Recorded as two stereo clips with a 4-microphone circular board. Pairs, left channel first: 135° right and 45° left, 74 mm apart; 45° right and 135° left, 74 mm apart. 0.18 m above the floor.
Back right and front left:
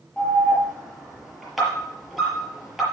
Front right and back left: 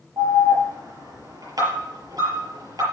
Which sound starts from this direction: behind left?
An alarm, at 0.2 s.